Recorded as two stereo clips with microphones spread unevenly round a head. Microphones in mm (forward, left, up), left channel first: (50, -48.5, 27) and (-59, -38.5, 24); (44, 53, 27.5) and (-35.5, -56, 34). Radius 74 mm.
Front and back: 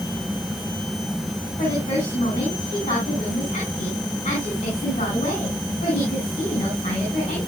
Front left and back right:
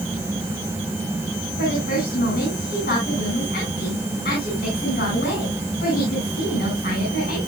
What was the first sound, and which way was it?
A woman speaking, 40° left.